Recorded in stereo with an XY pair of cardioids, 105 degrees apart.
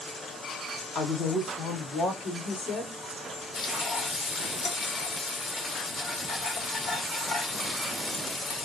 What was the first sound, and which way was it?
A woman speaking, 70° left.